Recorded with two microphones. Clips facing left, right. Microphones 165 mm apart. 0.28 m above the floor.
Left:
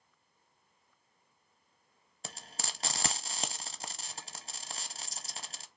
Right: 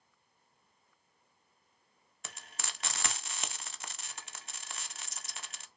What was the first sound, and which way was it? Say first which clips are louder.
Frying: left 3 dB; 35° left (ahead or behind).